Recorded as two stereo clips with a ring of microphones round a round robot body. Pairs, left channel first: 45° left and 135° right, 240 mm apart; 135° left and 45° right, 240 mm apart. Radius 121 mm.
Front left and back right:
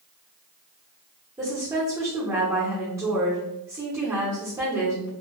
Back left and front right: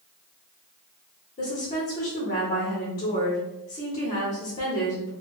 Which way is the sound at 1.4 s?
160° left.